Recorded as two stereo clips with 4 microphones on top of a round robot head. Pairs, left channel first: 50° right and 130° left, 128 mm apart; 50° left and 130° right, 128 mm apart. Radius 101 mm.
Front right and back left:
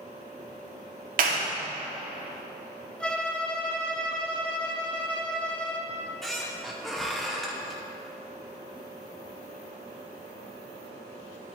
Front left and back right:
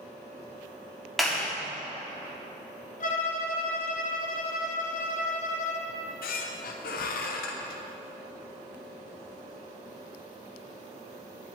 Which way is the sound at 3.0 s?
35° left.